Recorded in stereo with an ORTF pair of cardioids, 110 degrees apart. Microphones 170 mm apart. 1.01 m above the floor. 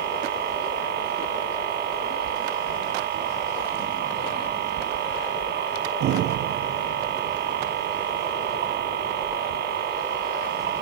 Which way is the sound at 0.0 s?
70° right.